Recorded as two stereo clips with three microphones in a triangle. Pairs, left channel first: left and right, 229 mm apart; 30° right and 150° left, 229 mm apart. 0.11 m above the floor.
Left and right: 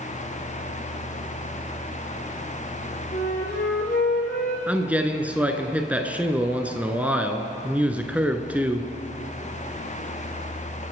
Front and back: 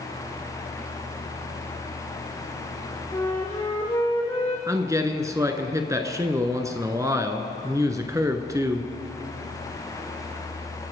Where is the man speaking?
160° right, 1.1 m.